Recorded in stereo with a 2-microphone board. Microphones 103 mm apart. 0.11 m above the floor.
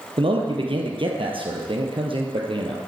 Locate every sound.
0.2 s a man speaking: 55° right (ahead or behind), 2.5 m